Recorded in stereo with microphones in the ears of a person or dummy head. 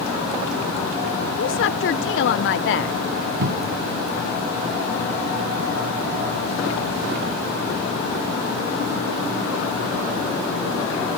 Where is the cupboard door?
60° right (ahead or behind).